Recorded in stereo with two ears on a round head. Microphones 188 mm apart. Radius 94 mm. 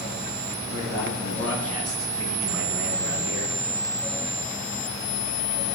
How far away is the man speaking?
About 6 m.